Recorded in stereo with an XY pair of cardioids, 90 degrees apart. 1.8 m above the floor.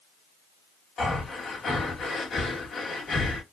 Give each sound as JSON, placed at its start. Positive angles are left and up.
{"t": 1.0, "sound": "breathing", "azimuth_deg": 55, "distance_m": 1.8}